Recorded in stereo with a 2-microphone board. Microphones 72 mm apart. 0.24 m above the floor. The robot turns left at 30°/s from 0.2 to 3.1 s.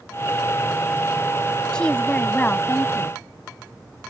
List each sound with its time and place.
1.7 s a woman speaking: 165° left; by 3.1 s 125° left